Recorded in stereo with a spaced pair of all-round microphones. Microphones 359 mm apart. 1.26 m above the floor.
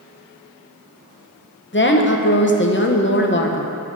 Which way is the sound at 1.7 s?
35° left (ahead or behind).